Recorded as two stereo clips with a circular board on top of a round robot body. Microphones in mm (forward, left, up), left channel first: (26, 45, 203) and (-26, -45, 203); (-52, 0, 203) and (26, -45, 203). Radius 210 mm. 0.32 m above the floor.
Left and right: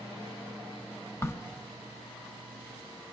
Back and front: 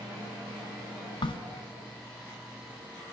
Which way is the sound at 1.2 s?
125° left.